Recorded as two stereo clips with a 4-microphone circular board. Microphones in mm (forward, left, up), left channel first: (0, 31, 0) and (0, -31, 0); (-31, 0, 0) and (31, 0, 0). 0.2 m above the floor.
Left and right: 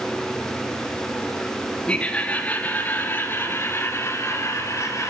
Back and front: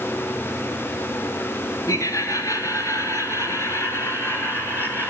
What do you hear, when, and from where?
1.9 s laughter: 160° left, 3 m; by 5.1 s 125° left, 3.5 m